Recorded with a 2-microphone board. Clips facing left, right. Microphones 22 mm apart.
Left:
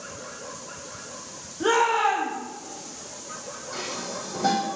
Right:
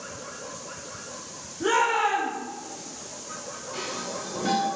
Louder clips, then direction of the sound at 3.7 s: Even; 70° left (ahead or behind).